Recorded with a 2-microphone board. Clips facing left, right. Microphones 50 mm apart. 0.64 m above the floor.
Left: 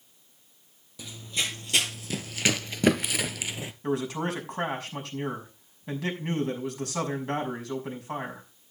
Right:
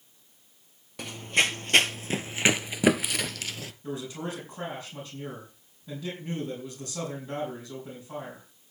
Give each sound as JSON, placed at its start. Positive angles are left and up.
{"t": 1.0, "sound": "running footsteps", "side_deg": -60, "distance_m": 1.2}
{"t": 3.8, "sound": "a man speaking", "side_deg": 70, "distance_m": 5.5}